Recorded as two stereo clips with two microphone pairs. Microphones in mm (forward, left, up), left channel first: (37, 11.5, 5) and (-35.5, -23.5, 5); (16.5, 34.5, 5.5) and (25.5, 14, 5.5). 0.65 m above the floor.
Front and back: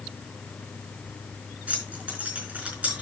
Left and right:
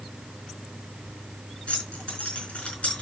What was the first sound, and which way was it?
Keys jangling, 135° left.